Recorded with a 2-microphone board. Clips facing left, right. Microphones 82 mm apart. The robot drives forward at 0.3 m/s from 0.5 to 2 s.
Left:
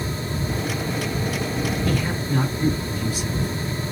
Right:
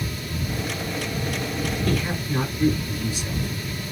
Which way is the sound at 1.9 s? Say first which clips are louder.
Left 1 dB; centre (ahead or behind).